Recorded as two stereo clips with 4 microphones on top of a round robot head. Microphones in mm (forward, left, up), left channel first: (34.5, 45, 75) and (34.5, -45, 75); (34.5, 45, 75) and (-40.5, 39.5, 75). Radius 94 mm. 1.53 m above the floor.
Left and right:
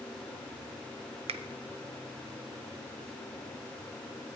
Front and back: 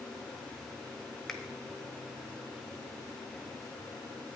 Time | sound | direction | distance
1.3 | a finger snap | 85° right | 0.5 m